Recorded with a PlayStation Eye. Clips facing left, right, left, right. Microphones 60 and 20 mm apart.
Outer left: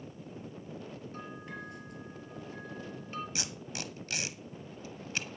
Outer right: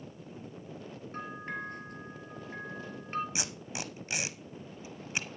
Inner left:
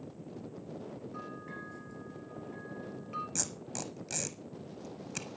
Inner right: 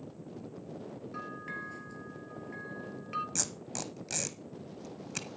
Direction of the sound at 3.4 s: 20° right (ahead or behind).